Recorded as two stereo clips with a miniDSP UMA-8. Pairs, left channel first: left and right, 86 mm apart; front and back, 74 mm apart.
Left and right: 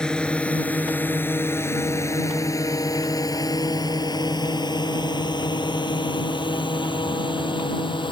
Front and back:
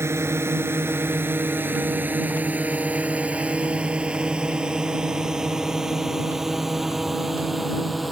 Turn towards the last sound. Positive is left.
turn(degrees=90)